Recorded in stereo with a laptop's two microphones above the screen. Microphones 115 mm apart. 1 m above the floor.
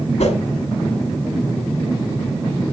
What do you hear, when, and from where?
0.2 s a whoosh: 80° left, 1.3 m